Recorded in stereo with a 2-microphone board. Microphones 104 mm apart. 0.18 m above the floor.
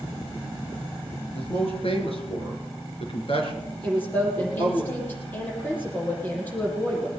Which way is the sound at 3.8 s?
20° left (ahead or behind).